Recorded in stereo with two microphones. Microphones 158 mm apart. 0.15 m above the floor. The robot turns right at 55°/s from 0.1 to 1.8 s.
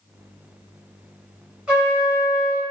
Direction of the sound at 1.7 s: 5° right (ahead or behind).